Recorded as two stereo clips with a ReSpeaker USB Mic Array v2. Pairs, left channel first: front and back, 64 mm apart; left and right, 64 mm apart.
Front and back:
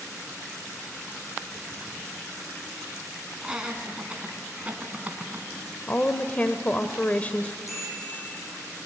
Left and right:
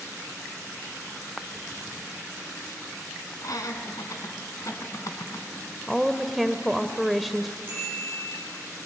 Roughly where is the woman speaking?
Ahead.